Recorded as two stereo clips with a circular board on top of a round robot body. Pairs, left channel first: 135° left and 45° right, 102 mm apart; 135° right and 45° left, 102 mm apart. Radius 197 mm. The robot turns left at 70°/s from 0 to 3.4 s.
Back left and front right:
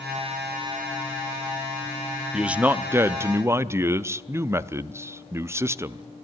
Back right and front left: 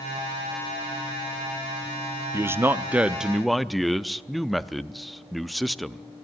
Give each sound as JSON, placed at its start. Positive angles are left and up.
{"t": 2.3, "sound": "a man speaking", "azimuth_deg": 30, "distance_m": 0.8}